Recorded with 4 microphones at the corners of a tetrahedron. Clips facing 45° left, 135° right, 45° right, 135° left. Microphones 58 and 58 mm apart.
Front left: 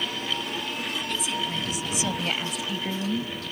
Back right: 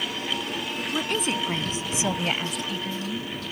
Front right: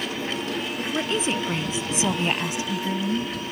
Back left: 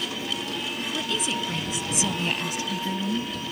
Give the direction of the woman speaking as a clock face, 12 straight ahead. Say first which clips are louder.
Back right 6 dB, front right 4 dB; 3 o'clock.